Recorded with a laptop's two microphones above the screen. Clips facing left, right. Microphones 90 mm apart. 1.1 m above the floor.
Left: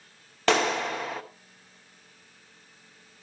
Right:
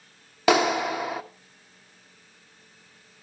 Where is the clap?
10° right (ahead or behind), 1.1 m.